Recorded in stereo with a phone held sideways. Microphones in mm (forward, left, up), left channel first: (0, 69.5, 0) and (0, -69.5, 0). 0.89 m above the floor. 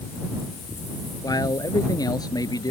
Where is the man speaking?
25° left (ahead or behind).